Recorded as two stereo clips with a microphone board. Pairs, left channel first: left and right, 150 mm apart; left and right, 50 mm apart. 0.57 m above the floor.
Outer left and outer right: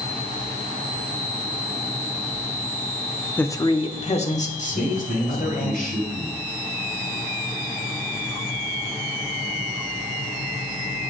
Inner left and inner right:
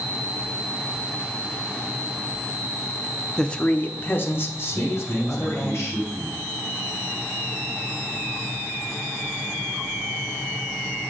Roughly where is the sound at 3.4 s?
Centre.